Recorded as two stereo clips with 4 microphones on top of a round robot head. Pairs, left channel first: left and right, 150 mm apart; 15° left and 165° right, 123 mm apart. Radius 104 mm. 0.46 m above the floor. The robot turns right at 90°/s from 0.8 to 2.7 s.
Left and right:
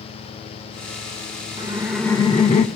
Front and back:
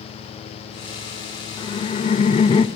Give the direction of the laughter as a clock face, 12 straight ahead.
1 o'clock.